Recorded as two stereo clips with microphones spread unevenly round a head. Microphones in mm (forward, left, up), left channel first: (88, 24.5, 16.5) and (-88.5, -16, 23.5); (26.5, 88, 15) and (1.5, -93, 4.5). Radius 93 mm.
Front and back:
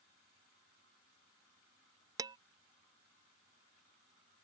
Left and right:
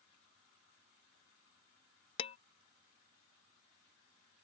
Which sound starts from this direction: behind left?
Dishes clattering, at 2.2 s.